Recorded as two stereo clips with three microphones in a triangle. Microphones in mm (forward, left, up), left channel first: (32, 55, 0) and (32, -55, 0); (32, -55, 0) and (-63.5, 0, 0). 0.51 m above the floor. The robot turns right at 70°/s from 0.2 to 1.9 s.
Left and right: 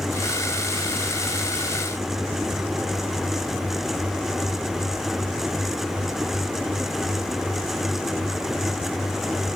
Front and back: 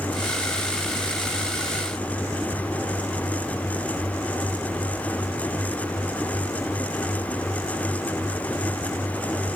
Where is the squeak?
I don't hear a squeak.